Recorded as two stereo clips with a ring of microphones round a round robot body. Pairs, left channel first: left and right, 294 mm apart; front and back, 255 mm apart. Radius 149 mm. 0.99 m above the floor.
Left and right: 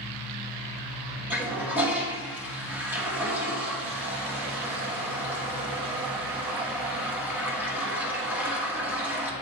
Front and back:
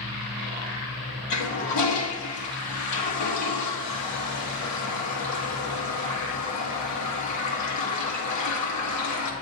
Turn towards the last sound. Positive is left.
turn(degrees=-5)